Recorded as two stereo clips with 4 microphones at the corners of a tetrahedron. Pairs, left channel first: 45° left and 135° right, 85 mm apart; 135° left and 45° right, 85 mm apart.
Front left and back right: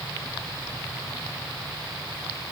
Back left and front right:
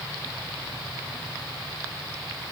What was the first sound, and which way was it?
Only background noise.